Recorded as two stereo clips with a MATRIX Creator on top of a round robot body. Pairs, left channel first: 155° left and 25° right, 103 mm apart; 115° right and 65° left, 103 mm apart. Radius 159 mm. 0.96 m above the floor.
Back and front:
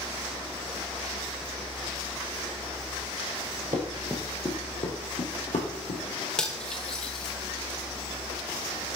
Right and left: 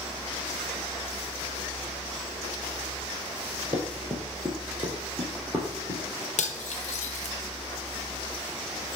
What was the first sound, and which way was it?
Running footsteps, 5° right.